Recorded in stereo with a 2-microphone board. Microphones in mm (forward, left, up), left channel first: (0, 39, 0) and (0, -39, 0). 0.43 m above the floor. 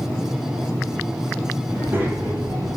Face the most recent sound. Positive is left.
turn(degrees=-40)  # may be behind; listen again after turning